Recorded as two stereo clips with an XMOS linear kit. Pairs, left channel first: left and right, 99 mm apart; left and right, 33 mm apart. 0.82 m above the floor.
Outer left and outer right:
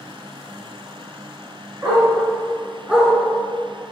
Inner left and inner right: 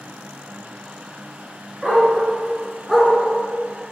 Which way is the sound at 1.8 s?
30° right (ahead or behind).